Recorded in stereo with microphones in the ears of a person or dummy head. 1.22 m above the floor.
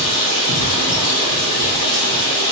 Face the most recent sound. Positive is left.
turn(degrees=40)  # may be behind; listen again after turning